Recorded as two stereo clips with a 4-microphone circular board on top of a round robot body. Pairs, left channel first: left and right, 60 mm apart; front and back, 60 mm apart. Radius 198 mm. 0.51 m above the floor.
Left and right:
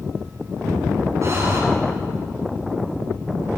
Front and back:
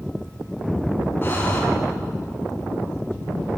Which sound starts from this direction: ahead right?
Breathing, at 1.2 s.